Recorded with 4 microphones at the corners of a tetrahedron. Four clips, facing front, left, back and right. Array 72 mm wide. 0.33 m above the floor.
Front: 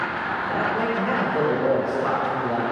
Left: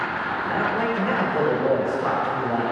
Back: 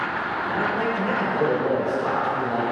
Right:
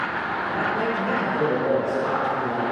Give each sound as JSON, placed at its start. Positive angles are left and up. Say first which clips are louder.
{"t": 0.4, "sound": "a man speaking", "louder": "left 1 dB, even", "azimuth_deg": 70, "distance_m": 0.9}